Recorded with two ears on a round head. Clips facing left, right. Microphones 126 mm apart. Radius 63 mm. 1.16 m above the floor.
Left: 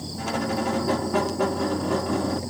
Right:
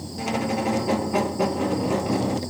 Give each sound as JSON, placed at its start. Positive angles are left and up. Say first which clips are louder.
{"t": 0.2, "sound": "a squeak", "louder": "right 1 dB", "side_deg": -15, "distance_m": 0.6}